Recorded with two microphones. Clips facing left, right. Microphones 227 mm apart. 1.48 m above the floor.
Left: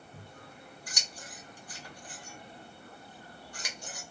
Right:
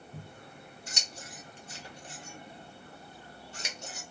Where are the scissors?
25° right (ahead or behind), 0.7 m.